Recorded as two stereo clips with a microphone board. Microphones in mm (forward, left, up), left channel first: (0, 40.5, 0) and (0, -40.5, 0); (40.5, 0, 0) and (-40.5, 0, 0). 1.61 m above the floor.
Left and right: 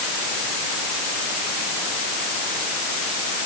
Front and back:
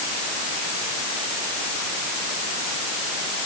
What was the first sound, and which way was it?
Only background noise.